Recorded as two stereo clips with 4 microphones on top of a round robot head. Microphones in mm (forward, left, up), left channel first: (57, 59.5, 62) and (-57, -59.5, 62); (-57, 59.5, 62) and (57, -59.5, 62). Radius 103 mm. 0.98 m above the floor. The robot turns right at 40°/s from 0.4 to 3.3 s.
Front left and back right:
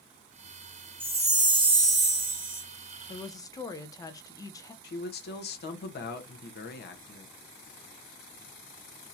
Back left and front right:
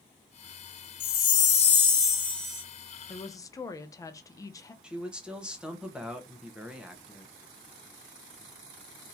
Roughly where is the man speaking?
Ahead left.